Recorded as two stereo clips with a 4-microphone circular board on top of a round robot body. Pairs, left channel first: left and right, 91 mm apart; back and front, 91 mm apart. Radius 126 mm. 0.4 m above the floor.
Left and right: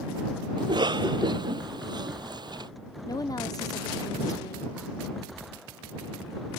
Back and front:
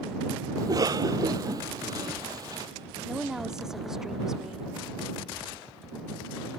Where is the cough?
50° right.